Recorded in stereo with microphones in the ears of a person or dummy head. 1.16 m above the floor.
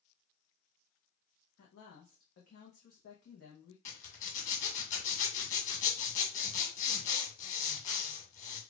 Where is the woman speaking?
60° left (ahead or behind), 0.8 m.